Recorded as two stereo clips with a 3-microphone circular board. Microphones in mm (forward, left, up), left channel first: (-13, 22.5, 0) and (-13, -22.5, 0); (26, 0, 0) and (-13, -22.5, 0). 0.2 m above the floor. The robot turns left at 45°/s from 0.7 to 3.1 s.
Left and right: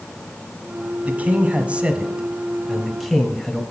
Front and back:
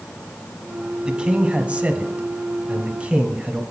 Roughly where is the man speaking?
Right.